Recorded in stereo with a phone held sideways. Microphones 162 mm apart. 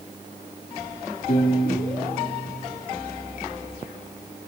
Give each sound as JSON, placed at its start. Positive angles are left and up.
{"t": 1.3, "sound": "a piano", "side_deg": 45, "distance_m": 8.0}